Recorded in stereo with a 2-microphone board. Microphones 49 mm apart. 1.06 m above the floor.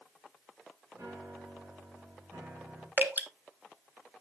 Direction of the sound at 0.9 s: 75° right (ahead or behind).